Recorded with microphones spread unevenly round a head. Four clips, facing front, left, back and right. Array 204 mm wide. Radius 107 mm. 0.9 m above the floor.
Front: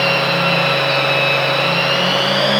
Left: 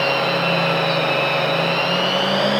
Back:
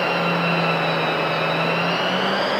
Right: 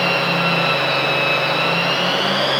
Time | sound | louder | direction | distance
0.0 | a machine running | even, front 4 dB | 55° left | 8.5 m